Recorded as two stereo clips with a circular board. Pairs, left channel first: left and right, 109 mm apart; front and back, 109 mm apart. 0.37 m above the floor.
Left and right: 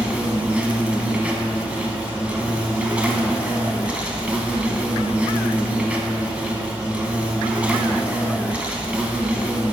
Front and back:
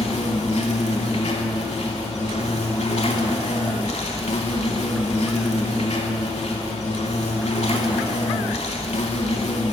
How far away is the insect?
About 0.8 m.